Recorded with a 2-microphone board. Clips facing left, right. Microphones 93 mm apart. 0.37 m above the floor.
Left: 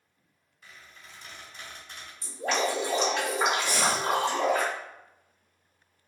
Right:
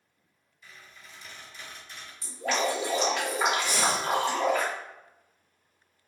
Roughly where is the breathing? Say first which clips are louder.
Even; right.